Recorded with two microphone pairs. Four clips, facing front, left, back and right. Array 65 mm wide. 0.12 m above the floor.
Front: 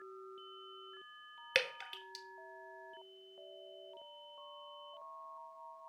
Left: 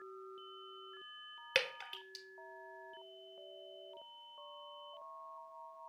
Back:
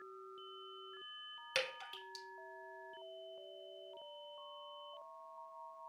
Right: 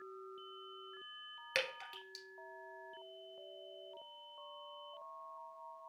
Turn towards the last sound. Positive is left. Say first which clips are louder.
# left 2 dB, front 5 dB
turn(degrees=15)